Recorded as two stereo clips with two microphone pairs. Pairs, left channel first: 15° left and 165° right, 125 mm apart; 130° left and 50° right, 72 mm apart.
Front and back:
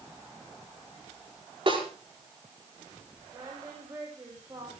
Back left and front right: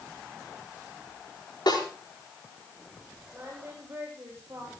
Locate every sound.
1.7 s a snare drum: 150° left, 5 m
3.3 s singing: 110° right, 9 m